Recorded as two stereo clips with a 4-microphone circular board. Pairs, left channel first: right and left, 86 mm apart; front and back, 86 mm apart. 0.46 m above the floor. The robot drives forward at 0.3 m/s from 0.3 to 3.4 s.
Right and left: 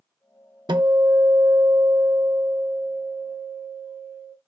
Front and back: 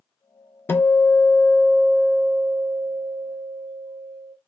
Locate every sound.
0.7 s a guitar: 60° left, 0.5 m; by 4.4 s 140° left, 0.7 m